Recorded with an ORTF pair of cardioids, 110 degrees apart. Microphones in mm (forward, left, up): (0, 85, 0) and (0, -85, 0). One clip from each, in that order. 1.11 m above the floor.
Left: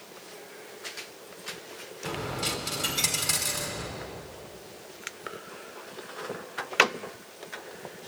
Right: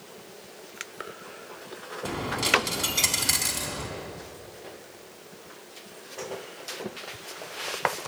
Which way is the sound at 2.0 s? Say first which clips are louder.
Right 6 dB; 50° right.